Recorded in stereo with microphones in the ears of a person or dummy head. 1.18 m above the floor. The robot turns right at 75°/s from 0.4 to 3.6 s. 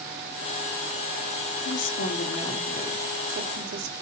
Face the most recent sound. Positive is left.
turn(degrees=-115)